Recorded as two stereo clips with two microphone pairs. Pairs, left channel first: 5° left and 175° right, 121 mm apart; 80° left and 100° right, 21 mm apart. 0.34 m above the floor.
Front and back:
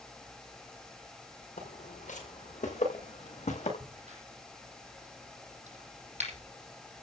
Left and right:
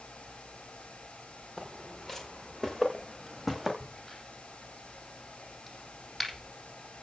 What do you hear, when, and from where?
1.6 s footsteps: 5° left, 8 m; by 3.7 s 15° right, 7.5 m
3.8 s a crack: 160° left, 6 m